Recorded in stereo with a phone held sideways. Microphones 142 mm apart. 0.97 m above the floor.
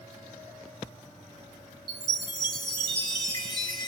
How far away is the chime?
About 0.8 m.